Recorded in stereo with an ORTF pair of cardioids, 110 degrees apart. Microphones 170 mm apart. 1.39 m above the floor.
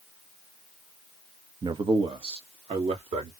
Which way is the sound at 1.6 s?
25° right.